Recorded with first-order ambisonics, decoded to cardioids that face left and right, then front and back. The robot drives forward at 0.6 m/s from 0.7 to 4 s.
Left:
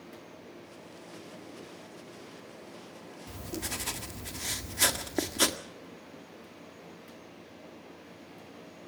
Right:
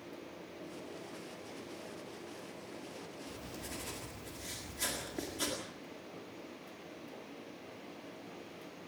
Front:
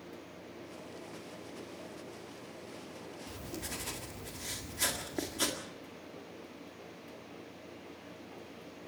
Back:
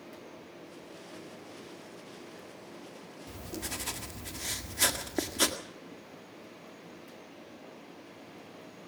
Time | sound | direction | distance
3.3 | writing | 100° left | 1.7 m